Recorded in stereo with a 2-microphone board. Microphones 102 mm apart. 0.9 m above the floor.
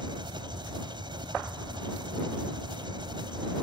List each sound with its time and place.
0.0 s an engine running: 55° right (ahead or behind)